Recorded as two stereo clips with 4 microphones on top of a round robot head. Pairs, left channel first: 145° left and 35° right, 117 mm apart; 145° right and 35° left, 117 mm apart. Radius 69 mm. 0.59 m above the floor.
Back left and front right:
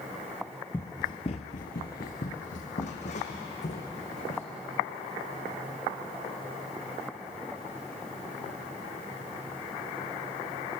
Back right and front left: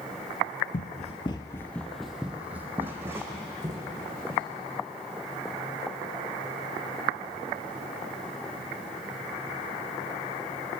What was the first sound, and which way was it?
Running footsteps, 145° right.